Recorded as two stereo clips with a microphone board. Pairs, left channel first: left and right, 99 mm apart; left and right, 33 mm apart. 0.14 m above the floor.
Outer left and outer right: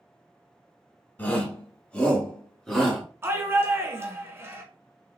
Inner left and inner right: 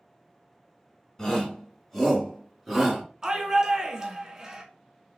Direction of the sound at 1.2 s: 20° left (ahead or behind).